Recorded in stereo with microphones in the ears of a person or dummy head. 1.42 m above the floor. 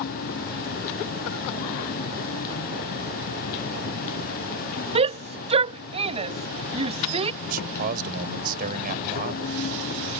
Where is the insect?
50° left (ahead or behind).